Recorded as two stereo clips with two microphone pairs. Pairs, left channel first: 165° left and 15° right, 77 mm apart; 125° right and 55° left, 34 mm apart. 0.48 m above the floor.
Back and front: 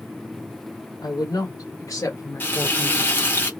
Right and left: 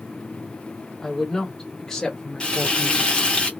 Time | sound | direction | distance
1.0 | a woman speaking | 155° left | 1.9 m
2.4 | frying | 160° right | 1.2 m